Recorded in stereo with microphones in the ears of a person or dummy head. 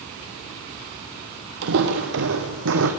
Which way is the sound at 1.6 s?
55° right (ahead or behind).